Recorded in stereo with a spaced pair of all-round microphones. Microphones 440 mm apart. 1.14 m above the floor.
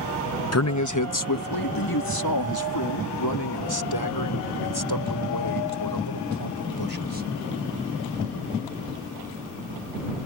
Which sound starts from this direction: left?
A man speaking, at 0.5 s.